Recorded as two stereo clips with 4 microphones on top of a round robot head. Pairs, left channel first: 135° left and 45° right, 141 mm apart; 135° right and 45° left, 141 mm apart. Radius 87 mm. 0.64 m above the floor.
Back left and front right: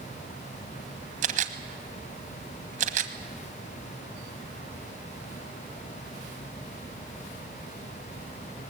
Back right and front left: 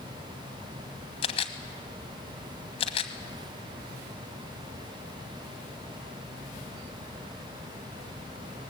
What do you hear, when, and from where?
1.2 s a camera shutter: 80° right, 1.3 m